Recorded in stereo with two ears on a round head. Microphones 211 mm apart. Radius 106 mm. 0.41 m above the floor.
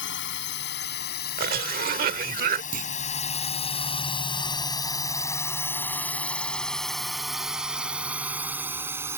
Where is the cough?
45° right (ahead or behind).